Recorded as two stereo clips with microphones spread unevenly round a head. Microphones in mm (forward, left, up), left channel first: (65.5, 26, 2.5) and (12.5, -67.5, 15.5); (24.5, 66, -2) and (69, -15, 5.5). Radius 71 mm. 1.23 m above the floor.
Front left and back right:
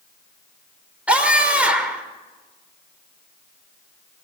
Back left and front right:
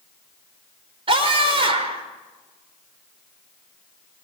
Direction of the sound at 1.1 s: 40° right.